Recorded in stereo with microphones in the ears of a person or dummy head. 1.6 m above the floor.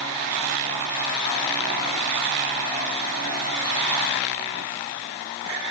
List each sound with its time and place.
Only background noise.